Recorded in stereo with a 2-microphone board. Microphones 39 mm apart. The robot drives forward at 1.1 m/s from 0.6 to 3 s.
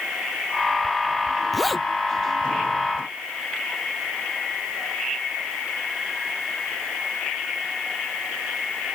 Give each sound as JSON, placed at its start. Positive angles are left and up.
{"t": 1.5, "sound": "a zipper", "side_deg": 5}